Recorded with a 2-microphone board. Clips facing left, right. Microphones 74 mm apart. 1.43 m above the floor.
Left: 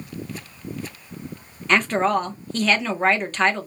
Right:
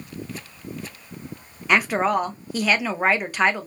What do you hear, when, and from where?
1.7 s a woman speaking: 10° right (ahead or behind), 0.6 m